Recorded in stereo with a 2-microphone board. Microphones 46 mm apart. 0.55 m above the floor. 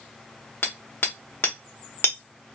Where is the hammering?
55° left (ahead or behind), 1.1 m.